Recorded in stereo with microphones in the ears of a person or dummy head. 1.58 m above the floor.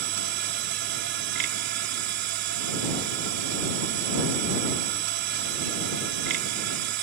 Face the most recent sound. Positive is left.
turn(degrees=-65)  # may be behind; listen again after turning